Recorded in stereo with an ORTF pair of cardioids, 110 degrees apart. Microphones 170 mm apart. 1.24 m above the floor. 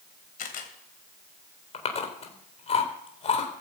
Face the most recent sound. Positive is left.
turn(degrees=35)